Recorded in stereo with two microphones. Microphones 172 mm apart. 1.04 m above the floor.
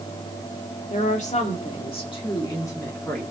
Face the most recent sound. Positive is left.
turn(degrees=10)  # may be behind; listen again after turning